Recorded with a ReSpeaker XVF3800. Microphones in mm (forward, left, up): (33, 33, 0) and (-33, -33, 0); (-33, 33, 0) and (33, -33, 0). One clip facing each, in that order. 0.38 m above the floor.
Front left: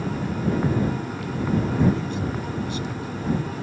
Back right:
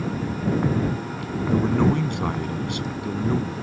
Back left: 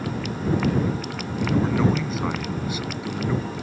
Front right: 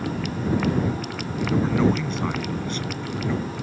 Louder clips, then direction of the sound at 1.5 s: Back right 2 dB, front right 1 dB; 135° right.